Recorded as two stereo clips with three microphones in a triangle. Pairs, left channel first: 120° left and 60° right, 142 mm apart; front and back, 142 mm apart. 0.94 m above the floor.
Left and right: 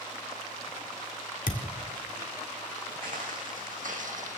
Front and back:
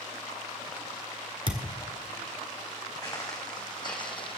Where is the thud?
125° left, 1.6 m.